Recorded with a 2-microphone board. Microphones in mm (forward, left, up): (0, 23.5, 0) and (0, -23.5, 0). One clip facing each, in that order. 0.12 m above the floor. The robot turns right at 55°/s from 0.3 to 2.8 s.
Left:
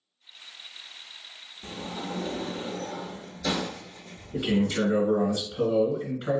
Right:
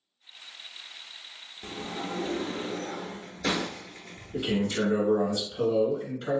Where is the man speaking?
15° left (ahead or behind), 1.8 m.